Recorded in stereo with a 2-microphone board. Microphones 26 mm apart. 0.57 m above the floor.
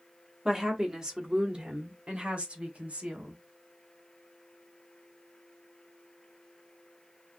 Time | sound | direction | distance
0.5 | a woman speaking | 20° right (ahead or behind) | 1.4 m